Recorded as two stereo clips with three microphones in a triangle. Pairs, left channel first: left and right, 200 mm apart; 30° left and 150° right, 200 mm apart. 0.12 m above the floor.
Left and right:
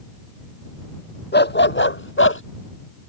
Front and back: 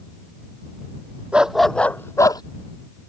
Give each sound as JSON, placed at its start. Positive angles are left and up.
{"t": 1.3, "sound": "a dog barking", "azimuth_deg": 125}